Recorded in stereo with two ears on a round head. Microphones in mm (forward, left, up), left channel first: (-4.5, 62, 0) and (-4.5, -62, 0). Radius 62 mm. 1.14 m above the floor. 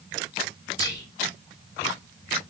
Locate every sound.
0.8 s whispering: 25° left (ahead or behind), 0.7 m